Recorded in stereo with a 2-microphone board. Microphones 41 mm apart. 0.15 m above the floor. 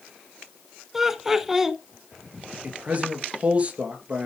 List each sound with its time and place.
0.9 s laughter: 10° right (ahead or behind), 1.1 m
2.6 s a man speaking: 30° right (ahead or behind), 2.5 m